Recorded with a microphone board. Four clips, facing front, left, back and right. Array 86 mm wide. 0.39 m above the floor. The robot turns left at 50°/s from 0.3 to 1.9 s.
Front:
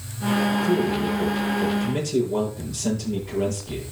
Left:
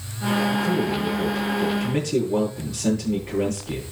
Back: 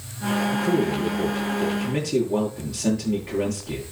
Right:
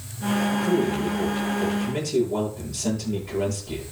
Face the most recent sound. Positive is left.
turn(degrees=140)